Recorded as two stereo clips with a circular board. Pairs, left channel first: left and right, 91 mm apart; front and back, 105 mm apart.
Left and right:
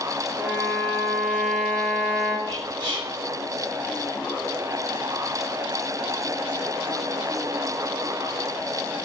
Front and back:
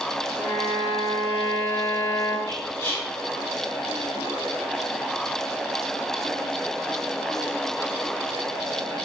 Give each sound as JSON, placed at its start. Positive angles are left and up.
{"t": 0.4, "sound": "a violin", "azimuth_deg": 20, "distance_m": 2.5}
{"t": 2.5, "sound": "whispering", "azimuth_deg": 40, "distance_m": 3.5}